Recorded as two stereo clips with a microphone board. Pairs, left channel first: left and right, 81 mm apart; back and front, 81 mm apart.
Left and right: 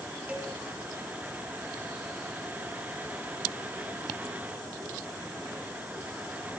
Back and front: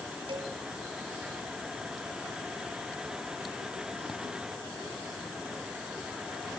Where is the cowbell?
15° right, 1.2 m.